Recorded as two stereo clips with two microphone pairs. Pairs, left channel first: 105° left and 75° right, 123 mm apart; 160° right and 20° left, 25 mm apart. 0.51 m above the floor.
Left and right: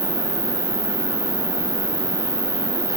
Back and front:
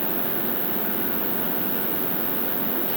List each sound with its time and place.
0.0 s an insect: 85° right, 1.5 m